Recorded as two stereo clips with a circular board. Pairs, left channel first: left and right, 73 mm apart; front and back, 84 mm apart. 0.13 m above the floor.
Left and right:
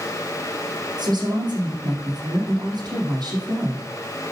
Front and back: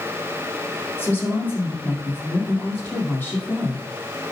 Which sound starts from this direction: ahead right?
A woman speaking, at 1.0 s.